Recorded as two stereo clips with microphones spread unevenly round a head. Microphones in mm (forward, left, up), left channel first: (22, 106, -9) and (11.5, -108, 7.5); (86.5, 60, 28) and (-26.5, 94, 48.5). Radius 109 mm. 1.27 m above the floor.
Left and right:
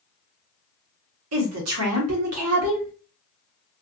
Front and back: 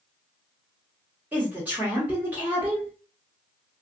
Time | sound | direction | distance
1.3 | a woman speaking | 115° right | 1.2 m